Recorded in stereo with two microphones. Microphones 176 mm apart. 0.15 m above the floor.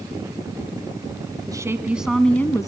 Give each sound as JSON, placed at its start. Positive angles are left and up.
{"t": 1.5, "sound": "a woman speaking", "side_deg": -20, "distance_m": 1.4}